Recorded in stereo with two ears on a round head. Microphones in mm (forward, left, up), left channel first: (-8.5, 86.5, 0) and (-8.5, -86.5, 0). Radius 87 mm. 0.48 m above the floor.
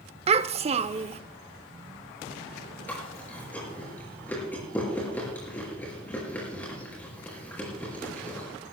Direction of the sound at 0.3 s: 35° right (ahead or behind).